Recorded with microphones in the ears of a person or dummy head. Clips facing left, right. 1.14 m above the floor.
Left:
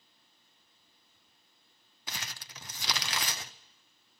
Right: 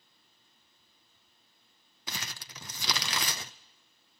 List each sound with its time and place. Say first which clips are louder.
2.1 s crumpling: right 2 dB; 70° right (ahead or behind), 0.5 m